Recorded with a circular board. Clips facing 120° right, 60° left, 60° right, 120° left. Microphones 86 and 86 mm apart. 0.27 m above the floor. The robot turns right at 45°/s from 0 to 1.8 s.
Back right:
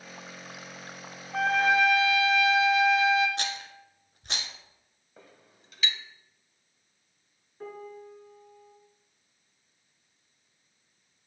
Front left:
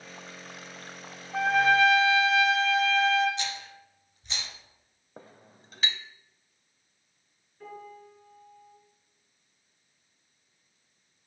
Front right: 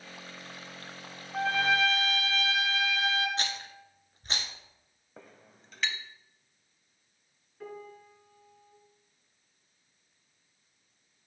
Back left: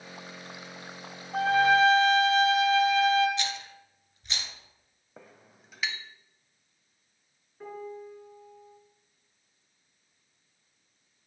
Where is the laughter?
I don't hear laughter.